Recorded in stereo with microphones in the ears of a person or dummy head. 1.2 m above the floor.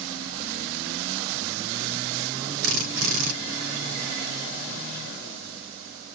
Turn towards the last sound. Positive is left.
turn(degrees=-70)  # may be behind; listen again after turning